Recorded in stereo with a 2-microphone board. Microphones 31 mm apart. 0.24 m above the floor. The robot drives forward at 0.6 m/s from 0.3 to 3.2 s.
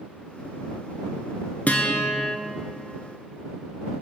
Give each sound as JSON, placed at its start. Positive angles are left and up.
{"t": 1.7, "sound": "a guitar", "side_deg": 50, "distance_m": 1.2}